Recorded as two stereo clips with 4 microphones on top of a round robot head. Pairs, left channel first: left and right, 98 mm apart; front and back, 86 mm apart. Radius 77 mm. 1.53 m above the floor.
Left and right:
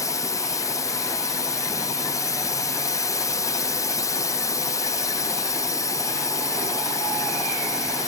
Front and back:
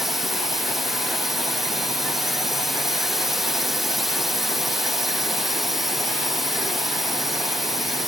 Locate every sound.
0.0 s a drone: 95° left